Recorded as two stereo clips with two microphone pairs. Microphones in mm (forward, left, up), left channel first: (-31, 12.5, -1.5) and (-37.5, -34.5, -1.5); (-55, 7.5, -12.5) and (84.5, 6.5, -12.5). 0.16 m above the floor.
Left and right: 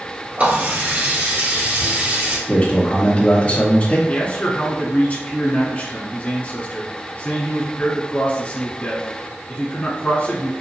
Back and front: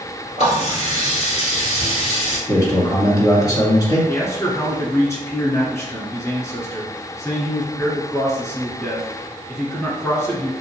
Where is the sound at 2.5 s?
130° left, 1.9 m.